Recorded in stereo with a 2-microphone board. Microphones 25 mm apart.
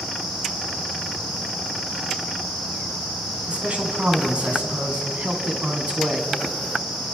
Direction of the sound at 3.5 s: 50° right (ahead or behind).